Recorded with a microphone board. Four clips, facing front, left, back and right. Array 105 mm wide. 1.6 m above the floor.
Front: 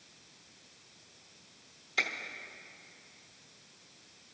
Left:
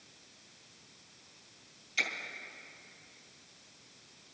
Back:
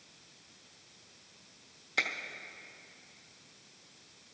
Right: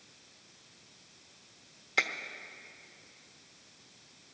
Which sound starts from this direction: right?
A finger snap, at 2.0 s.